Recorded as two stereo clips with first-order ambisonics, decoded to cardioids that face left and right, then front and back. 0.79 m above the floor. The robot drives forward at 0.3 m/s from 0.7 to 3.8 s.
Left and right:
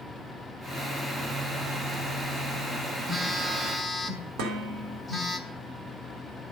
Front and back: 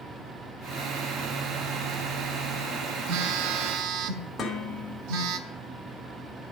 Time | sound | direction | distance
3.1 | a phone buzzing | 170° right | 0.7 m
4.4 | dishes clattering | 85° right | 1.9 m